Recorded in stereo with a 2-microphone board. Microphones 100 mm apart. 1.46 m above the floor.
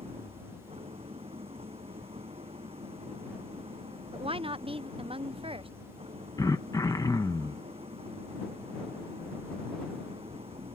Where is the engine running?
85° right.